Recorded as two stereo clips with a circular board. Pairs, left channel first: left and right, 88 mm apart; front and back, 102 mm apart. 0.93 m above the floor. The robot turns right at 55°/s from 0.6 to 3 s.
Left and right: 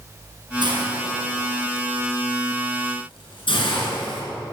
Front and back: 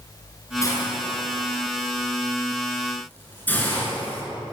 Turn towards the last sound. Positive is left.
turn(degrees=75)